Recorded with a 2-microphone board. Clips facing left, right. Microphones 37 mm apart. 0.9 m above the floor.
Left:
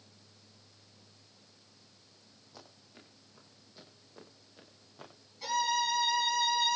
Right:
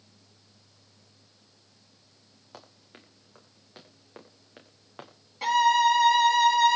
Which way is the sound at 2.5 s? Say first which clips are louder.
Right 5 dB; 65° right (ahead or behind).